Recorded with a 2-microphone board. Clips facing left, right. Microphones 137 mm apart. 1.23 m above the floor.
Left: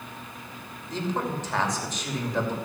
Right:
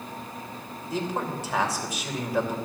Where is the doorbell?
No doorbell in this recording.